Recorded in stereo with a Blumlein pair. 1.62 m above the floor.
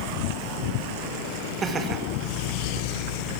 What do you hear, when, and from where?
1.6 s laughter: 20° right, 2.0 m